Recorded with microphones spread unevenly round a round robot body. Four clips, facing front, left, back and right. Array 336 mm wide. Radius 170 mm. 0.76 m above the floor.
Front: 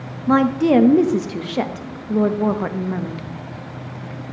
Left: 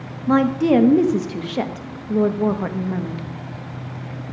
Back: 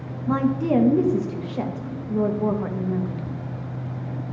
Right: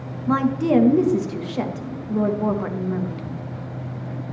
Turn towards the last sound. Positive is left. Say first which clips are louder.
# left 3 dB, front 6 dB
turn(degrees=55)